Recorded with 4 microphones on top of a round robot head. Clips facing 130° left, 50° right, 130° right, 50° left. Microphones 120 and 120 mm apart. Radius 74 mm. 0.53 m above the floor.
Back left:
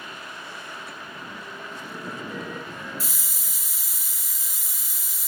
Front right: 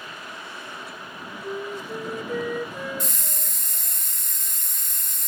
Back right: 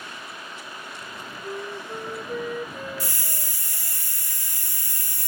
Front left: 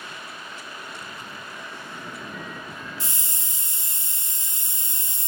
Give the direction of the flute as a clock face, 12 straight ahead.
3 o'clock.